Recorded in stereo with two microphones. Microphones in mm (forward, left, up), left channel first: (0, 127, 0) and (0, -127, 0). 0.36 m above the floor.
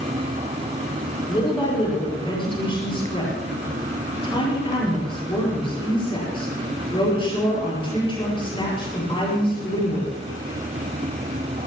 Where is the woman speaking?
20° left (ahead or behind), 7.5 m.